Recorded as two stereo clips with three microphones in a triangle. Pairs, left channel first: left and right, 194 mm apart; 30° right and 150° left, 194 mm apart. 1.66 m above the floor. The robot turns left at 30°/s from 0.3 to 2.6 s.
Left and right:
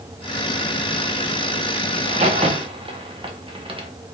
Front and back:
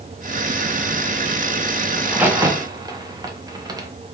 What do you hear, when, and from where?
2.0 s a crack: 125° right, 0.8 m; by 3.9 s 145° right, 0.8 m